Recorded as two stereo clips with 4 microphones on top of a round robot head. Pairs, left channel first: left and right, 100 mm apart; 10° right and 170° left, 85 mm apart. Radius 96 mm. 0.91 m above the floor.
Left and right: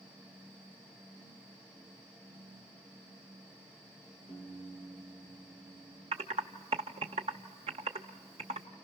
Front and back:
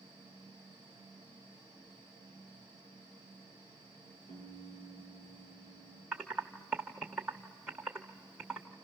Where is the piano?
10° left, 7.5 m.